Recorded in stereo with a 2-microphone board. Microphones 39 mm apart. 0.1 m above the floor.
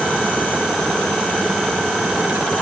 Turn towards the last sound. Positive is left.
No sound to turn to.